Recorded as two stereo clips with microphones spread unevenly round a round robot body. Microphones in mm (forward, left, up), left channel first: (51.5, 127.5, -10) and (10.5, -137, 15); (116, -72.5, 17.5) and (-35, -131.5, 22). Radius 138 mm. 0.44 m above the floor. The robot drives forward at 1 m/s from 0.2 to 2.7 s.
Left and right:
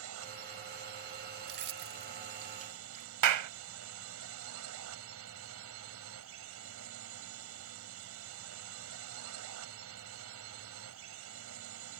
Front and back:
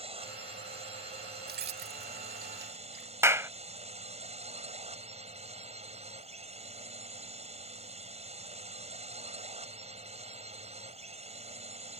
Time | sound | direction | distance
0.0 | a drone | 115° right | ?
1.5 | keys jangling | 150° right | ?
3.2 | a clap | 85° right | ?